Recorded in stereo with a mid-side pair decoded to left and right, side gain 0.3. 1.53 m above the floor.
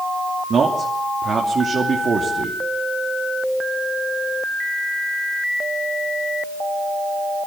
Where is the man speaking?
65° right, 3 m.